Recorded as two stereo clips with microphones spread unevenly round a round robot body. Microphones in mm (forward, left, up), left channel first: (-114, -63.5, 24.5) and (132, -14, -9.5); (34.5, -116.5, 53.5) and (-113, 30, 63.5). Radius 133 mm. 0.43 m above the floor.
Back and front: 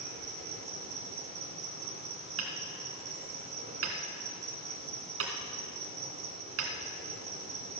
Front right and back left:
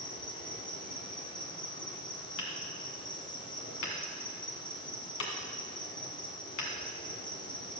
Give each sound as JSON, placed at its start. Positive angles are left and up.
{"t": 0.0, "sound": "an insect", "azimuth_deg": 0, "distance_m": 1.8}
{"t": 2.4, "sound": "hammering", "azimuth_deg": -20, "distance_m": 1.8}